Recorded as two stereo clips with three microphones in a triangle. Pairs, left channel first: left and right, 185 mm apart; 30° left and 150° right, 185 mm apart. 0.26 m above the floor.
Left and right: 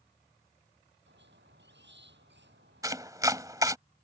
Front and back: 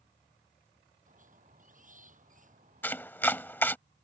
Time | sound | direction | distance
1.1 | a squeak | 105° right | ?
2.8 | chopping | 40° right | ?